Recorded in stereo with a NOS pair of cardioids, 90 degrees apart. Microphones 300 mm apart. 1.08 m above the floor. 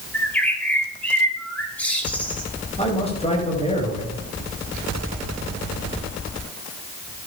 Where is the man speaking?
20° left, 9.5 m.